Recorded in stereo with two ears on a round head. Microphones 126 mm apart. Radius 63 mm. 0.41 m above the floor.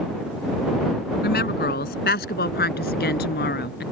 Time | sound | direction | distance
1.2 | a woman speaking | 75° left (ahead or behind) | ?